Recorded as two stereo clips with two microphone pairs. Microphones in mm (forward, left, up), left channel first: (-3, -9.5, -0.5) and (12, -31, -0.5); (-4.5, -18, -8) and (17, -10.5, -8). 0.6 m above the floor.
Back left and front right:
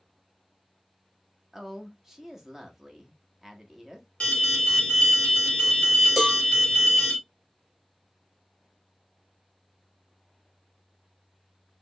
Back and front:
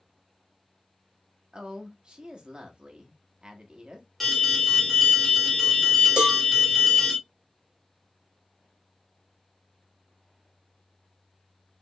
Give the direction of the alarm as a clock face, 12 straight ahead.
8 o'clock.